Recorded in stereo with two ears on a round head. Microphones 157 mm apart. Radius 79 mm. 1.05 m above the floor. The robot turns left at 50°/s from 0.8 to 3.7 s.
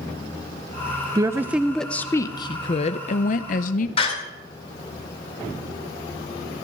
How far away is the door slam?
About 2.5 m.